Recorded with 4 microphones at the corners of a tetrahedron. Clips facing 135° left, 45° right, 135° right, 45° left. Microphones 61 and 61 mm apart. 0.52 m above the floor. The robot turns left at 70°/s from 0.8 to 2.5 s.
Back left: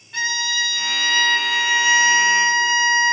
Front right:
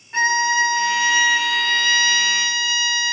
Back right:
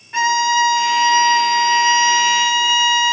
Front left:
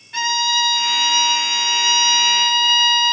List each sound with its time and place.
0.1 s a violin: 85° right, 0.6 m; by 3.1 s 155° left, 0.6 m